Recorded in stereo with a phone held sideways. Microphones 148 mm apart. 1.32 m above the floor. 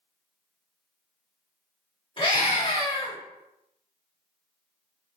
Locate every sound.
2.2 s a scream: 35° left (ahead or behind), 1.8 m